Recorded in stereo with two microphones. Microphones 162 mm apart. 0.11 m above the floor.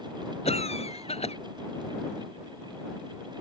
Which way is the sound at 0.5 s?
40° left (ahead or behind).